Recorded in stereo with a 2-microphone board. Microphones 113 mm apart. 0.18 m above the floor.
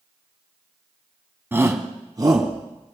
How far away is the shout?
About 1.1 m.